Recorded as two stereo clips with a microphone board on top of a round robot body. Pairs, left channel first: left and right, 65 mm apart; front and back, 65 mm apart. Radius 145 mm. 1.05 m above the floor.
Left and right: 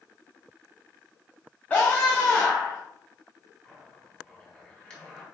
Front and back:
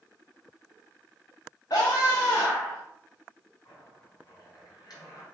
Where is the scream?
20° left, 1.2 m.